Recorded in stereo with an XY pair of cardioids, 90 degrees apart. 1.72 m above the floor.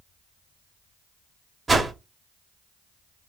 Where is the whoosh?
30° right, 1.1 m.